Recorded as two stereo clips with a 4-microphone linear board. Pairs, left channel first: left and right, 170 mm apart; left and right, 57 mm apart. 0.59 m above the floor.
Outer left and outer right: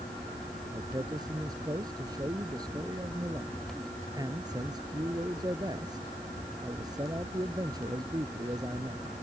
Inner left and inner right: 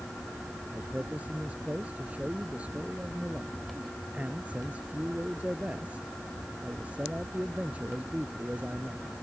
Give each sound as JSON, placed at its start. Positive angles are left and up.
{"t": 0.7, "sound": "a man speaking", "side_deg": -25}